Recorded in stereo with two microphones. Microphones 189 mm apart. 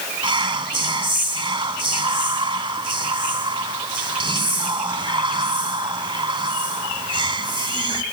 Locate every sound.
0.2 s whispering: 25° right (ahead or behind), 1.4 m